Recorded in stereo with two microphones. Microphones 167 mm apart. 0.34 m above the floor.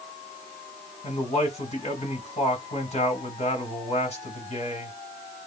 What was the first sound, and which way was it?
A man speaking, 40° left (ahead or behind).